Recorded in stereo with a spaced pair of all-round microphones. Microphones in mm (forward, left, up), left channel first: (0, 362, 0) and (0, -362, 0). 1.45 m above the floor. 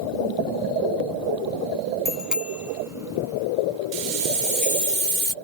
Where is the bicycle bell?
Centre (ahead or behind); by 4.9 s 10° right (ahead or behind).